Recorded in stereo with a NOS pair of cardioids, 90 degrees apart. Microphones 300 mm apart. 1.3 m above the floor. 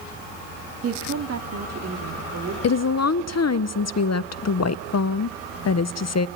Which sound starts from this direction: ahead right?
A woman speaking, at 0.8 s.